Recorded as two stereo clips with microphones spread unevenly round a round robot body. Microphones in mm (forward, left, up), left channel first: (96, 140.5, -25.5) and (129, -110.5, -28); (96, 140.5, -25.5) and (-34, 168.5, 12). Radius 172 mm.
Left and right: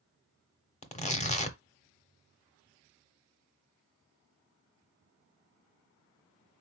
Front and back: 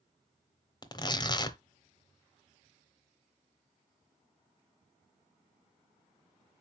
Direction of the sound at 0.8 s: 35° left.